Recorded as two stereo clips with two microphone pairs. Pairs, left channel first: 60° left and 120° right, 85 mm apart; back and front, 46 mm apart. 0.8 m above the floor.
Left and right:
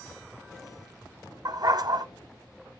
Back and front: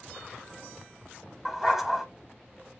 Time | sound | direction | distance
1.4 | a dog barking | 85° right | 0.9 m